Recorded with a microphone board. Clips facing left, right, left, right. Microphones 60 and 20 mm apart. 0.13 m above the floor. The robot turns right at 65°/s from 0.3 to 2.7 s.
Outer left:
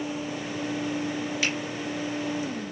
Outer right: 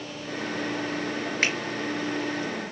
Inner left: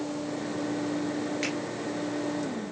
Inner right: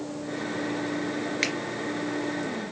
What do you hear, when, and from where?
1.4 s a finger snap: 45° right (ahead or behind), 2 m; by 1.5 s 50° right (ahead or behind), 2 m